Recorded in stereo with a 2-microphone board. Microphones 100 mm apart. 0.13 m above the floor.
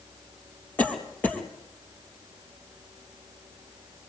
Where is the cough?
15° left (ahead or behind), 3.5 m.